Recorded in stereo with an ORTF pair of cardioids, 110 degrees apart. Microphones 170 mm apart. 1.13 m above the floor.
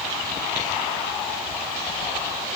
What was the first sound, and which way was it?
Only background noise.